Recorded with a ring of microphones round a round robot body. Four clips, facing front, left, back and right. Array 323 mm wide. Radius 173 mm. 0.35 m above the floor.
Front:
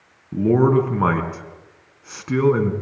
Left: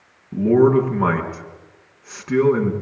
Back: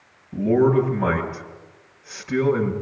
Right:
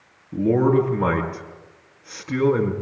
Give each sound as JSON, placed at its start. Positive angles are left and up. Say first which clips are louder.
{"t": 0.3, "sound": "a man speaking", "louder": "left 4 dB, front 1 dB", "azimuth_deg": 25, "distance_m": 5.5}